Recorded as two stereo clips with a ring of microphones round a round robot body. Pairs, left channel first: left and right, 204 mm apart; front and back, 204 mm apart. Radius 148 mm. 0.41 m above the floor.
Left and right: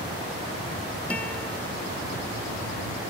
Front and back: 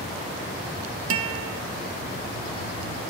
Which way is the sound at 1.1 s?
175° left.